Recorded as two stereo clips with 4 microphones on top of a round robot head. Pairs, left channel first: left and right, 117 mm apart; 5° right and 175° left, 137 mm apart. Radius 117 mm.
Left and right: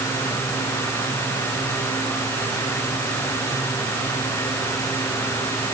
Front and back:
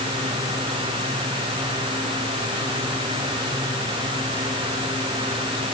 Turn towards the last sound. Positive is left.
No sound to turn to.